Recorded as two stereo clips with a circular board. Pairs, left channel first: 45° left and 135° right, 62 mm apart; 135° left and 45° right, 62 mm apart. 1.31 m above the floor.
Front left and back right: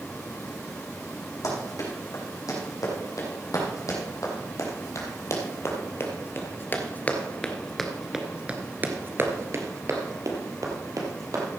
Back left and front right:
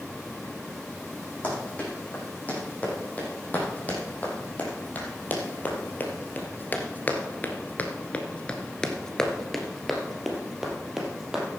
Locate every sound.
1.4 s running footsteps: 70° left, 5.5 m; by 11.5 s 125° right, 3 m